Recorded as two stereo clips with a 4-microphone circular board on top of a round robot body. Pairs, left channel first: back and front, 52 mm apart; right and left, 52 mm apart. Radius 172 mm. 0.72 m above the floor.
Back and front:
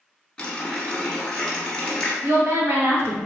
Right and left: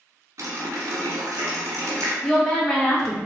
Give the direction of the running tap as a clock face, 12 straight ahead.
9 o'clock.